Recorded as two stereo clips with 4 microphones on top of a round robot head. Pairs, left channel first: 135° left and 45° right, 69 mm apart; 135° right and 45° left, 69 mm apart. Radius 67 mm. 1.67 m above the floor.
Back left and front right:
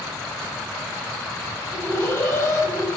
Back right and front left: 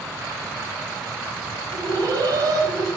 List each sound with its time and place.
1.7 s an alarm: 80° left, 6.5 m